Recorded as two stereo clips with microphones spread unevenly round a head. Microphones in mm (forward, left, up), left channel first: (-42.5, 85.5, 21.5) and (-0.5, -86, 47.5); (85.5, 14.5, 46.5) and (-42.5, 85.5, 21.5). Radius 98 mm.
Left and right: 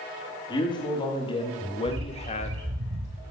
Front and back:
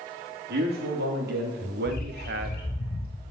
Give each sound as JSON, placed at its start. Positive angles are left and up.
{"t": 0.5, "sound": "a man speaking", "azimuth_deg": 170, "distance_m": 3.0}
{"t": 1.9, "sound": "a bird", "azimuth_deg": -70, "distance_m": 3.0}